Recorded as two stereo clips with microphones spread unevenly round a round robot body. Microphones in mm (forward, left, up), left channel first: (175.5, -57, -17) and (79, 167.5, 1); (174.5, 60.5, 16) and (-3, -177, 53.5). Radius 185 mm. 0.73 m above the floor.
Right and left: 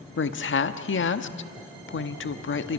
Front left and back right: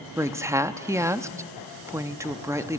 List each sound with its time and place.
0.2 s a woman speaking: 40° right, 1.0 m